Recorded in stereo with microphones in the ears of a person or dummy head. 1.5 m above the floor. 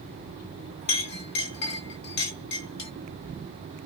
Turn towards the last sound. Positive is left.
turn(degrees=65)  # may be behind; listen again after turning